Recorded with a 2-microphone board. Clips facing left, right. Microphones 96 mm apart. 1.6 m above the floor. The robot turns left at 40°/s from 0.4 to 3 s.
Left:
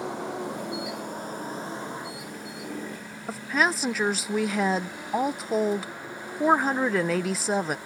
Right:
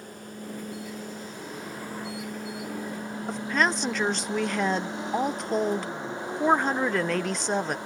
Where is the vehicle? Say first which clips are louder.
Left 9 dB; 80° left; by 7.9 s 20° right.